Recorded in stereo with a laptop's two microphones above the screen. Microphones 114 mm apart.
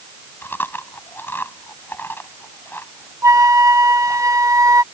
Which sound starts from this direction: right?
A flute, at 3.2 s.